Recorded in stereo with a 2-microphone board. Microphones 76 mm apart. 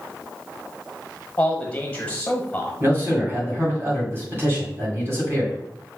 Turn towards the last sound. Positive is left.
turn(degrees=-35)  # may be behind; listen again after turning